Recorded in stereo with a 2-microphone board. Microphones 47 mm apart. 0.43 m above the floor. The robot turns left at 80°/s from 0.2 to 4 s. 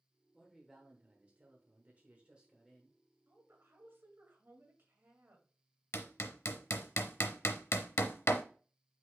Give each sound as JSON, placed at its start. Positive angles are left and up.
{"t": 0.3, "sound": "a man speaking", "azimuth_deg": 20, "distance_m": 1.1}
{"t": 3.3, "sound": "a woman speaking", "azimuth_deg": -55, "distance_m": 1.9}
{"t": 5.9, "sound": "hammering", "side_deg": 65, "distance_m": 0.6}